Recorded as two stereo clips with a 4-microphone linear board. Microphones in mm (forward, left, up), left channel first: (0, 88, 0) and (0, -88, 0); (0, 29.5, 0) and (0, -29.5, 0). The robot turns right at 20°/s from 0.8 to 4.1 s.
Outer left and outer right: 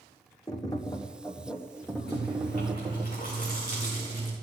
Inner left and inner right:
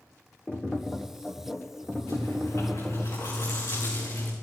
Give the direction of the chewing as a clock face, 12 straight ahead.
8 o'clock.